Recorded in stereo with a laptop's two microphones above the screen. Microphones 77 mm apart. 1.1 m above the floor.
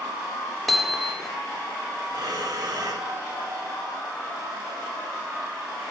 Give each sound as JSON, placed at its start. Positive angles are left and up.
{"t": 0.7, "sound": "hammering", "side_deg": 0, "distance_m": 1.8}
{"t": 2.1, "sound": "breathing", "side_deg": -55, "distance_m": 9.5}